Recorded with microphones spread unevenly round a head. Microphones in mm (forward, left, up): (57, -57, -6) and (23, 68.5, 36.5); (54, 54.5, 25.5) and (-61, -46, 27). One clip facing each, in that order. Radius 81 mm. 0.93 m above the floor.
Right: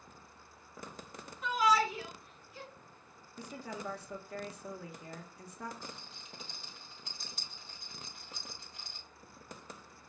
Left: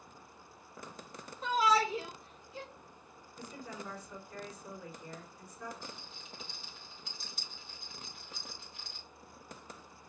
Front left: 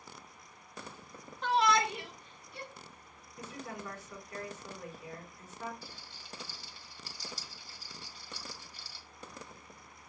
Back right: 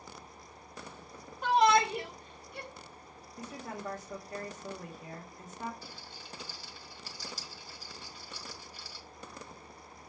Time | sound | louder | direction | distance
1.4 | a shout | even, back right 4 dB | 155° left | 0.6 m
3.4 | a woman speaking | right 3 dB, back right 2 dB | 85° right | 1.5 m
5.8 | a rattle | even, back right 3 dB | 130° right | 1.5 m